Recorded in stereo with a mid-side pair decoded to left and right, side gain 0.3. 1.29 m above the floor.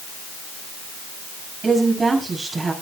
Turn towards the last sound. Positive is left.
turn(degrees=-45)